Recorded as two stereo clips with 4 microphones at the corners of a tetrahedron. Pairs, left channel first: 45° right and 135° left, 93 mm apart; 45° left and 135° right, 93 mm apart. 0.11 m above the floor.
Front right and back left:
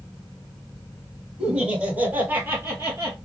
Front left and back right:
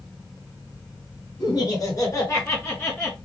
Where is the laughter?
55° left, 1.8 m; by 3.2 s 105° left, 1.5 m.